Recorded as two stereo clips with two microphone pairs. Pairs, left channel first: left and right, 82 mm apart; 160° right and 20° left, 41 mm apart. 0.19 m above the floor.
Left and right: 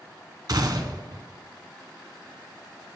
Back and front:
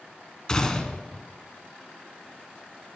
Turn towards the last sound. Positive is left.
turn(degrees=-95)